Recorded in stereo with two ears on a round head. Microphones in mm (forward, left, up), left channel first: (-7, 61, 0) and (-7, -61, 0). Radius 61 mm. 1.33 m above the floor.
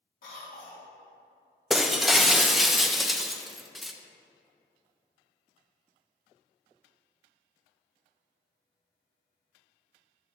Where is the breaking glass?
Centre (ahead or behind), 0.5 m.